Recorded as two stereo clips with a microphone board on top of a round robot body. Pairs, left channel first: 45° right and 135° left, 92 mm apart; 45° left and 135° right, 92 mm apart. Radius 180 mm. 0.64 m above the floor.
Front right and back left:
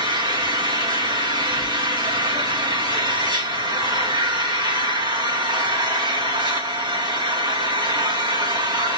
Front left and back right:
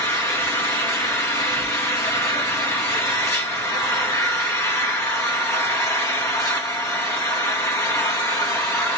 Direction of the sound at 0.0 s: 100° left.